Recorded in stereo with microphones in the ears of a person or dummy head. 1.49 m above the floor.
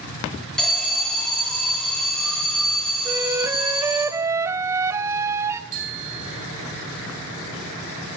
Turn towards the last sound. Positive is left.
turn(degrees=-55)  # may be behind; listen again after turning